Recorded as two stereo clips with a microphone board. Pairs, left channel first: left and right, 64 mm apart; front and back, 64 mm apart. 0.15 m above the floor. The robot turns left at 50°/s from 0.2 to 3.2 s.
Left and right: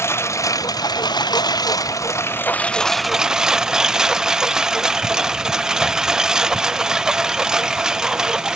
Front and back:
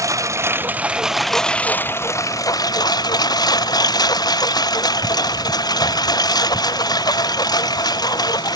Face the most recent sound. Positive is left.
turn(degrees=-10)